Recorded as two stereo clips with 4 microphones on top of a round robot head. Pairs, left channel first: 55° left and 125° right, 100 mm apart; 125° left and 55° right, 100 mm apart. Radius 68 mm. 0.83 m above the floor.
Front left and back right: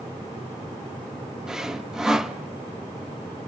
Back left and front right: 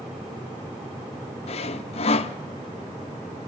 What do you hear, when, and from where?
1.5 s sawing: 150° left, 1.1 m